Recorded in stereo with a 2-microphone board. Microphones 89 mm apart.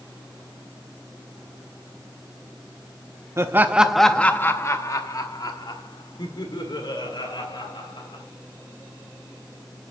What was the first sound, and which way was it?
Laughter, 35° right (ahead or behind).